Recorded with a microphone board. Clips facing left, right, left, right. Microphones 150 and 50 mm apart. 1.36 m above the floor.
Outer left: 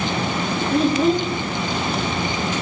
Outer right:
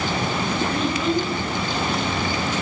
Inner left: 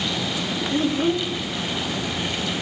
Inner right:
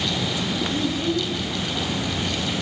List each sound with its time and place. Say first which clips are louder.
0.7 s a child speaking: outer left 8 dB, inner left 5 dB; 40° left (ahead or behind), 1.0 m